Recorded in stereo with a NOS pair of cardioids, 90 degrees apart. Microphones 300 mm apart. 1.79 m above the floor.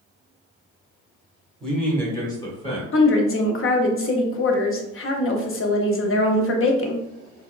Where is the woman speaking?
45° left, 0.8 m.